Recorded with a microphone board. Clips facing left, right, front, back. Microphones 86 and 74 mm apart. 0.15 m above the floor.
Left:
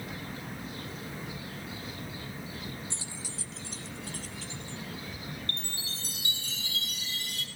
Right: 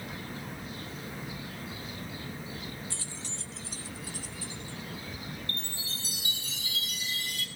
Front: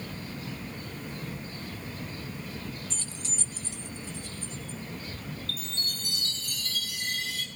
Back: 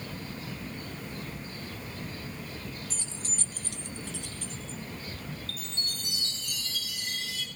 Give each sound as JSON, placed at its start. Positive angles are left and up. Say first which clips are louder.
{"t": 2.9, "sound": "keys jangling", "louder": "even, front 1 dB", "azimuth_deg": 100, "distance_m": 0.7}
{"t": 5.5, "sound": "a chime", "louder": "even, front 2 dB", "azimuth_deg": 55, "distance_m": 3.5}